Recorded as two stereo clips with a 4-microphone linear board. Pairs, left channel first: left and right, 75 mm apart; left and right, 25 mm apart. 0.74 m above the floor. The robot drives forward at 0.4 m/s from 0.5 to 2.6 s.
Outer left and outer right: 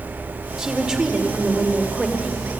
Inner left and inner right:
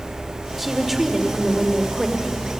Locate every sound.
0.6 s a woman speaking: 10° right (ahead or behind), 3 m; by 2.3 s 5° right (ahead or behind), 3.5 m